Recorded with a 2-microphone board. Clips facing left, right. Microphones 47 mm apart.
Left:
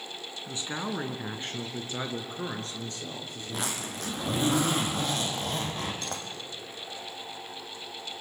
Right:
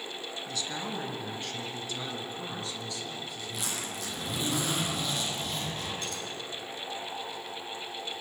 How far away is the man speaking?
About 2.5 m.